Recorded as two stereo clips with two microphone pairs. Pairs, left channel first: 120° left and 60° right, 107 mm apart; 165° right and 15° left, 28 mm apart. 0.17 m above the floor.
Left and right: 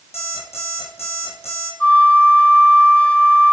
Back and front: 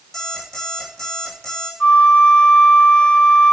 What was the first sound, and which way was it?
An alarm clock, 115° left.